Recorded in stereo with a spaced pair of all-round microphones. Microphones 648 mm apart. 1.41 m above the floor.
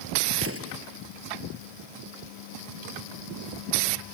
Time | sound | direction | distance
0.4 | an explosion | 20° right (ahead or behind) | ?